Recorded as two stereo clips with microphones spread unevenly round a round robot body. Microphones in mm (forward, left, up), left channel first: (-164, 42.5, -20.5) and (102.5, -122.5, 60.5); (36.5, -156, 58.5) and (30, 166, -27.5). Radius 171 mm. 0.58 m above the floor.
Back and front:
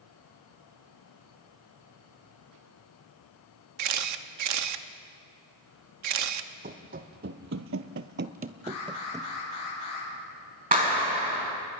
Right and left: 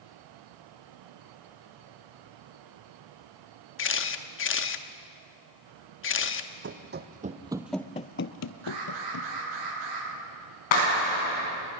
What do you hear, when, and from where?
3.8 s a camera shutter: 40° right, 1.0 m
6.6 s running footsteps: 30° left, 1.7 m; by 9.3 s 110° right, 1.7 m
8.6 s an alarm: 105° left, 9 m
10.7 s a clap: 100° right, 5.5 m